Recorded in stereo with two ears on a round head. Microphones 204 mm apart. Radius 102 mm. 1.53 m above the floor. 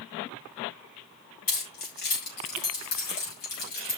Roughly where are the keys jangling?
Left.